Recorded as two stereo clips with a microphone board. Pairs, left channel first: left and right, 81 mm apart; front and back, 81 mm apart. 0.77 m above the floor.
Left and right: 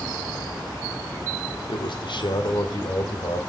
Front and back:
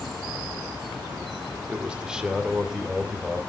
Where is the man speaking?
105° left, 1.4 m; by 3.4 s 95° left, 3 m.